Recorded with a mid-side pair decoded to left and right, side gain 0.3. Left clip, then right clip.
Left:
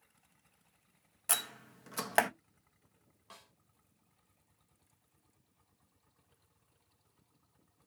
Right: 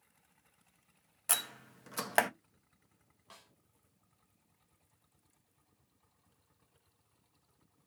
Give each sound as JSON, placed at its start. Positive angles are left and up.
{"t": 1.3, "sound": "a door slam", "azimuth_deg": 0, "distance_m": 0.8}
{"t": 3.3, "sound": "a snare drum", "azimuth_deg": 10, "distance_m": 1.5}